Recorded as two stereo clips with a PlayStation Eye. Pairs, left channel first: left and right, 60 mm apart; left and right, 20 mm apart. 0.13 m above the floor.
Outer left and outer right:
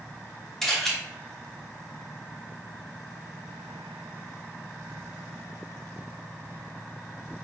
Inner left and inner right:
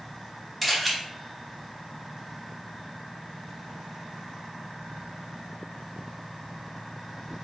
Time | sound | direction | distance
0.6 | a camera shutter | 5° left (ahead or behind) | 2.5 m